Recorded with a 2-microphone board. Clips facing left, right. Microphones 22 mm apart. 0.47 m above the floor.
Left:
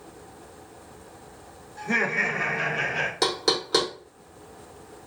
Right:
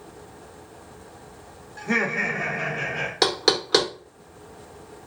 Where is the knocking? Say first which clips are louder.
Right 5 dB; 30° right (ahead or behind), 0.7 m.